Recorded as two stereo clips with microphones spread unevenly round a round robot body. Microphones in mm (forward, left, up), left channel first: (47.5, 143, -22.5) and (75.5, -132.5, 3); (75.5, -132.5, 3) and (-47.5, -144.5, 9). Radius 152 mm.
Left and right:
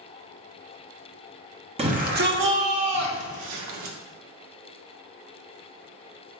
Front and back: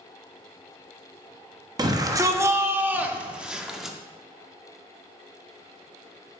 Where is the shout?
145° right, 1.2 m; by 4.0 s 85° right, 2 m.